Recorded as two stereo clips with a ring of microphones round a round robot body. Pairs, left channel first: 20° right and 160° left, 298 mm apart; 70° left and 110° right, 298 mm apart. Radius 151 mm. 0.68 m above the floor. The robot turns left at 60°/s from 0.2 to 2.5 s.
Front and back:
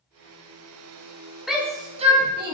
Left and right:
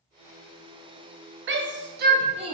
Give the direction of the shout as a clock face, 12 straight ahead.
4 o'clock.